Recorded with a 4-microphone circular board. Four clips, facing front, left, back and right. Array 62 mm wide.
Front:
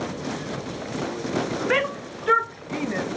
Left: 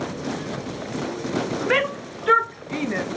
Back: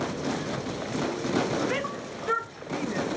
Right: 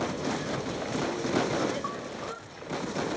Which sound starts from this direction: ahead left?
A shout, at 1.7 s.